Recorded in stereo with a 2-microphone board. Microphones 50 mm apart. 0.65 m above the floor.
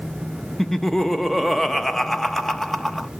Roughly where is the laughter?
Centre.